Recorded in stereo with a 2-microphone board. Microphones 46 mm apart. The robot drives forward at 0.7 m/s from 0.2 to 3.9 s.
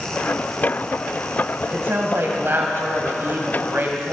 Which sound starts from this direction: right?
A woman speaking, at 1.7 s.